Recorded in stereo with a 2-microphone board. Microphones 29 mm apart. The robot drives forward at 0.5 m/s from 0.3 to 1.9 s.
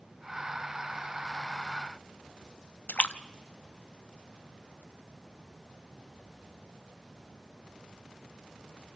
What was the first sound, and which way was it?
A splash, 60° left (ahead or behind).